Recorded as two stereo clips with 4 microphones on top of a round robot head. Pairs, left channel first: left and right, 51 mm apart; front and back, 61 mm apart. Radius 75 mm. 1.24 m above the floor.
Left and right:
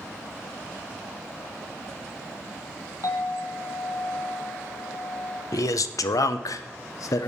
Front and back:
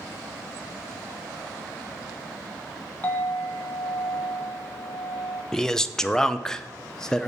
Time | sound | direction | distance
3.0 | a clink | 65° left | 1.0 m
5.5 | a man speaking | 80° left | 0.6 m